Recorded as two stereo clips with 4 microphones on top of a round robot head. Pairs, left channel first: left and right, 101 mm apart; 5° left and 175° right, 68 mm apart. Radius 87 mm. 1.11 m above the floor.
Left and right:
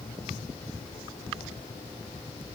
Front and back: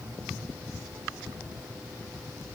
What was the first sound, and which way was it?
Only background noise.